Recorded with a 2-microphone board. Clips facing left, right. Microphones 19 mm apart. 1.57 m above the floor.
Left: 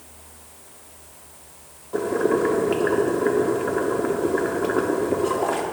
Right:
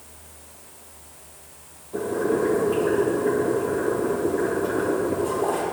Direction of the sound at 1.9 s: 45° left (ahead or behind).